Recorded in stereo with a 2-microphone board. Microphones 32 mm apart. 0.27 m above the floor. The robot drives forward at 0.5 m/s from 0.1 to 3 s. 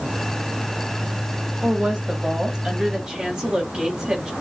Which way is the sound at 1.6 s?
30° right (ahead or behind).